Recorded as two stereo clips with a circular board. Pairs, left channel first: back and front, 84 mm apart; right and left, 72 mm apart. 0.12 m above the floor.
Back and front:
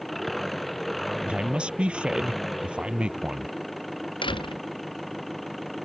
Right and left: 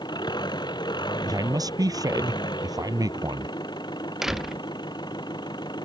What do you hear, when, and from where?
0.0 s an engine running: 90° right
1.2 s a man speaking: 75° left
4.2 s a door slam: 175° left